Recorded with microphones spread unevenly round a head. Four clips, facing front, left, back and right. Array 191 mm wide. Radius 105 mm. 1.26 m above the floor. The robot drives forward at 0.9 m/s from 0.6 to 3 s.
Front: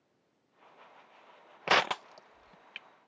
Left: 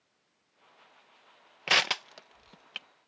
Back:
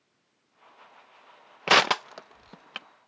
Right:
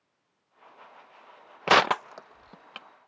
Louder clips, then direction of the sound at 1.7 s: Right 10 dB, back 6 dB; 125° right.